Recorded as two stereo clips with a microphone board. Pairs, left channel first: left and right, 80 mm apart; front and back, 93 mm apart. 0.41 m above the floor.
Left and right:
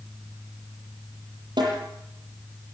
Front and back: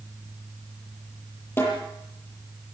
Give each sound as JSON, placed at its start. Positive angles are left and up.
{"t": 1.6, "sound": "a snare drum", "azimuth_deg": -65, "distance_m": 8.5}